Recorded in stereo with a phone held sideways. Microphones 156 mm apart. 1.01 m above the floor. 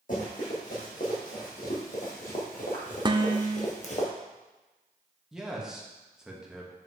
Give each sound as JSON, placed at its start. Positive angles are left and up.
{"t": 0.1, "sound": "running footsteps", "side_deg": 60, "distance_m": 3.5}
{"t": 3.0, "sound": "dishes clattering", "side_deg": -30, "distance_m": 0.5}
{"t": 5.3, "sound": "a man speaking", "side_deg": -5, "distance_m": 1.2}